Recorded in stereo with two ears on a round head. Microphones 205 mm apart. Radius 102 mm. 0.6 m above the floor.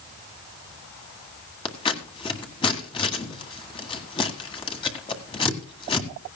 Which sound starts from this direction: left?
Scissors, at 1.6 s.